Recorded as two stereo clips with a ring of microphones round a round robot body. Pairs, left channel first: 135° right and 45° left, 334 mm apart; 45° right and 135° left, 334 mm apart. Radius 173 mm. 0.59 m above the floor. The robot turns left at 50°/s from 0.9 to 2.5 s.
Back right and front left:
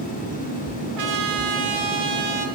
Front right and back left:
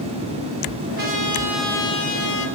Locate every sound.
1.0 s a trumpet: 75° left, 1.8 m; by 2.5 s straight ahead, 1.8 m